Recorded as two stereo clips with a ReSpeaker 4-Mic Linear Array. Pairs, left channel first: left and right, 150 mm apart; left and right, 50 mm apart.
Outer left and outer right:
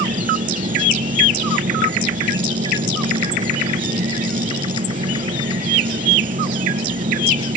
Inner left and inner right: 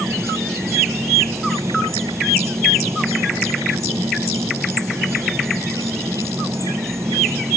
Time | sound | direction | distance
0.0 | an insect | 65° right (ahead or behind) | ?